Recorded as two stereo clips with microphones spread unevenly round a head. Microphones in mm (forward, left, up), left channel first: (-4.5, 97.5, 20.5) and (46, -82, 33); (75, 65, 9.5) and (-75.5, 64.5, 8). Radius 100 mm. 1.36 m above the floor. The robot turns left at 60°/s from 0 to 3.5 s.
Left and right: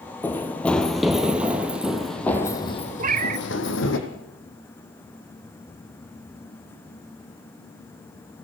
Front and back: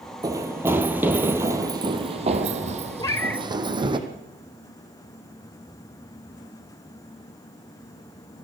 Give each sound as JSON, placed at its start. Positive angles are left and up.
{"t": 0.2, "sound": "running footsteps", "azimuth_deg": -175, "distance_m": 1.4}
{"t": 3.0, "sound": "a cat meowing", "azimuth_deg": -55, "distance_m": 0.6}